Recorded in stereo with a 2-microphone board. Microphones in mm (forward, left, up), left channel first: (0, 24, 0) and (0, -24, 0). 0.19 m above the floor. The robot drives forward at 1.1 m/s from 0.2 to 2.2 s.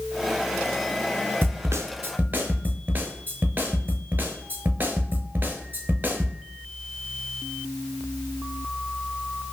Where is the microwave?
I don't hear a microwave.